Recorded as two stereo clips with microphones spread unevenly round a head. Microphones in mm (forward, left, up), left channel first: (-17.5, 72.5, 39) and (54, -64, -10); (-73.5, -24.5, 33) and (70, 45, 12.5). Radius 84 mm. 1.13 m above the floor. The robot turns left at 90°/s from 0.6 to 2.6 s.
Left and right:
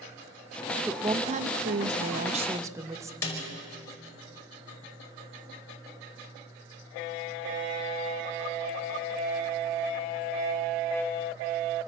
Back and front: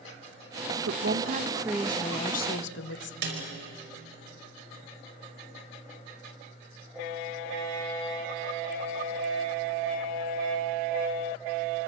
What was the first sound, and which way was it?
A woman speaking, 25° left.